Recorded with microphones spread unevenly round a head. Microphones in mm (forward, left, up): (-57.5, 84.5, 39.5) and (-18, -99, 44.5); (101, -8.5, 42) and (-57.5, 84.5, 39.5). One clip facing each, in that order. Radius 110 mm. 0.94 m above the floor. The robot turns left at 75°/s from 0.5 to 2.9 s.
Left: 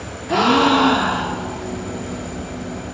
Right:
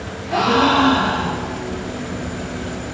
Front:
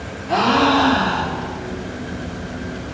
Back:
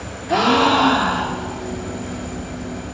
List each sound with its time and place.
0.3 s a gasp: 70° left, 0.8 m; by 1.6 s 15° right, 0.8 m